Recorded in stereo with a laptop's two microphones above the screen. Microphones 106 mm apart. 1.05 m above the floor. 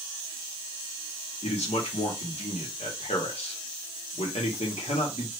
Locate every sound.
1.4 s a man speaking: 85° left, 1.3 m